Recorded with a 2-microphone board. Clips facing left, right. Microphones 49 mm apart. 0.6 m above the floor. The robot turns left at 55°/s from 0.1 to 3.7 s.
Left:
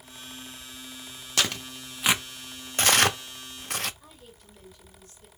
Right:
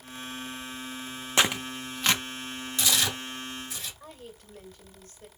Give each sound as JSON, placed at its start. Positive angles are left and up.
{"t": 1.4, "sound": "tearing paper", "side_deg": -25, "distance_m": 0.5}
{"t": 4.0, "sound": "a woman speaking", "side_deg": -50, "distance_m": 2.5}